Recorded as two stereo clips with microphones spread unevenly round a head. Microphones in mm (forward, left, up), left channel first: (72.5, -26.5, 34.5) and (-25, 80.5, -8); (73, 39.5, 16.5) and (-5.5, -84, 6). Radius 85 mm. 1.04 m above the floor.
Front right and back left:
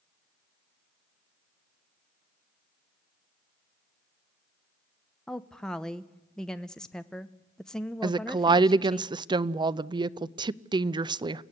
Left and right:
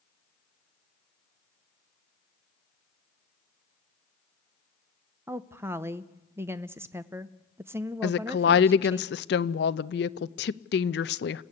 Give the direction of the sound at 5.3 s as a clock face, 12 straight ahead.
6 o'clock.